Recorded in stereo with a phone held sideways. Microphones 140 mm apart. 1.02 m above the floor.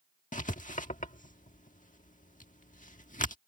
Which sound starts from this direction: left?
Writing, at 0.3 s.